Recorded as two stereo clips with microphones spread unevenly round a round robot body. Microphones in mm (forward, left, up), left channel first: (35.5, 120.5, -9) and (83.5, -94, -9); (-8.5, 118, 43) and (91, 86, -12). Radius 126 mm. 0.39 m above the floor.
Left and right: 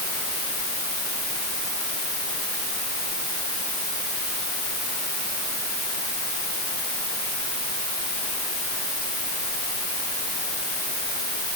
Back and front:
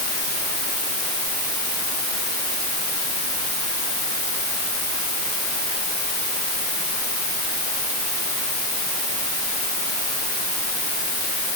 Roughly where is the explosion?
I don't hear an explosion.